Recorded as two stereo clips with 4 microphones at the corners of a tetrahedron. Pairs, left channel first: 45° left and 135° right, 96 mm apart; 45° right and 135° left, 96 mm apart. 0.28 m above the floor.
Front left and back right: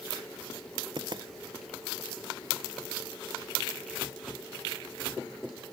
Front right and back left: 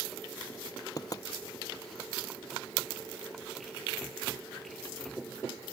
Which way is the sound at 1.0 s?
95° right.